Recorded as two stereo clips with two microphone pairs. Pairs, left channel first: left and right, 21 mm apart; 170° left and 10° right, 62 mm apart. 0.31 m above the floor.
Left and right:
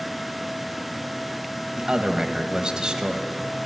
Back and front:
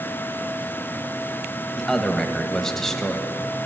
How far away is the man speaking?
About 1.3 m.